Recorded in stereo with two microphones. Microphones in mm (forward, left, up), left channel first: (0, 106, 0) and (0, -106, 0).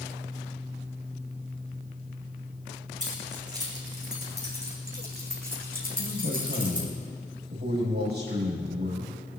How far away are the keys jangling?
About 6 m.